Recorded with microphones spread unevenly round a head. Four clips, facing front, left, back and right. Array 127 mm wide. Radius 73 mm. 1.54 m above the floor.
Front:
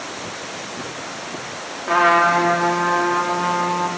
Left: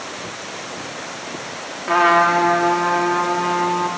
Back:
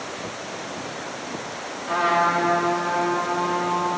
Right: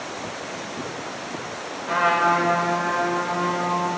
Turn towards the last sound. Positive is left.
turn(degrees=50)